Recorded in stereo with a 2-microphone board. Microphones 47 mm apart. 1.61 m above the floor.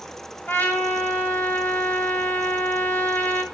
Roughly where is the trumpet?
Left.